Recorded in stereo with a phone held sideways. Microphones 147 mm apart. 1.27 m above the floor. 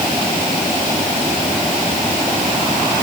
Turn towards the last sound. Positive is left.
No sound to turn to.